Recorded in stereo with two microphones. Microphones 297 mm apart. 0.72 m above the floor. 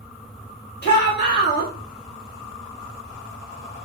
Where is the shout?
35° left (ahead or behind), 1.3 m.